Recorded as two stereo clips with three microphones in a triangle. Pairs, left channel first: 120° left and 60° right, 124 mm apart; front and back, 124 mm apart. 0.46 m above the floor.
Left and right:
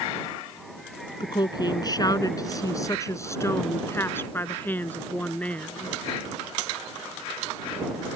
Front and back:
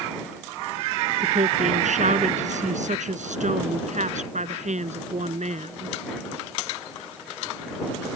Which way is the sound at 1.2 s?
170° left.